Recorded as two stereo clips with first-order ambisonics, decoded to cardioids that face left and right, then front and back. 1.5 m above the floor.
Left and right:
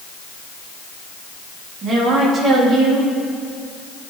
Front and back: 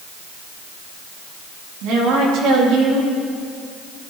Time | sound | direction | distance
1.8 | a woman speaking | 150° right | 3 m